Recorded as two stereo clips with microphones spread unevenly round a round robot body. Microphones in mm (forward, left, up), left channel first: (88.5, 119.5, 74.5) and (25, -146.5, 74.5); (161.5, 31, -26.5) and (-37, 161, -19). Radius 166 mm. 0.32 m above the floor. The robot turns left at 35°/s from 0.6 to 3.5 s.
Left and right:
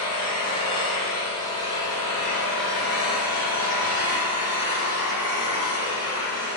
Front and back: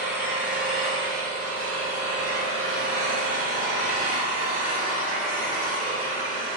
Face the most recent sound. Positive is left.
turn(degrees=-35)